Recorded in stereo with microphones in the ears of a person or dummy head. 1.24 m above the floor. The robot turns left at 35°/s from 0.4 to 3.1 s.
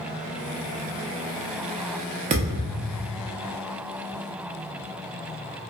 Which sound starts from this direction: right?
A thud, at 2.3 s.